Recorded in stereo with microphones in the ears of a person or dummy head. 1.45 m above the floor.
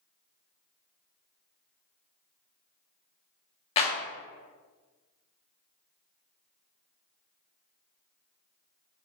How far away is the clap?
About 0.6 m.